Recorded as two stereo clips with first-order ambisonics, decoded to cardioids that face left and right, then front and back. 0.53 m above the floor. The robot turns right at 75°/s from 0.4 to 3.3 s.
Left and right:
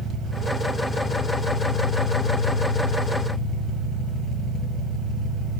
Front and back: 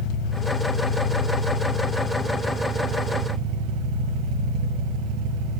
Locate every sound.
0.0 s an engine running: 30° right, 1.8 m; by 5.6 s 170° right, 1.8 m